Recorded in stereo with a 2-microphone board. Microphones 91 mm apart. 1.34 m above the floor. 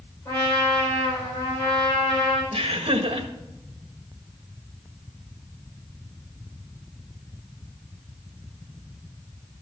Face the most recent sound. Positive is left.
turn(degrees=-80)